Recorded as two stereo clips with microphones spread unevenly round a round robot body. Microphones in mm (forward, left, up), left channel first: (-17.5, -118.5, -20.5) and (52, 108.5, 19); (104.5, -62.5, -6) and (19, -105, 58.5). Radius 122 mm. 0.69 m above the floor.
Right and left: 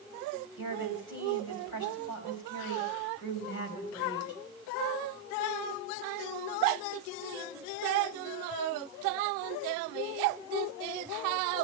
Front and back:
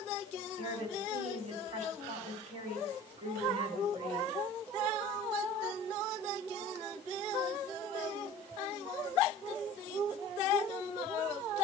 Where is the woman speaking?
145° right, 5 m.